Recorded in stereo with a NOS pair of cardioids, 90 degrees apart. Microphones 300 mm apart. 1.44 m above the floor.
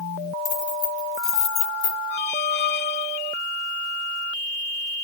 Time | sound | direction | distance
0.5 | keys jangling | 65° left | 3.5 m
2.1 | a squeak | 35° left | 0.9 m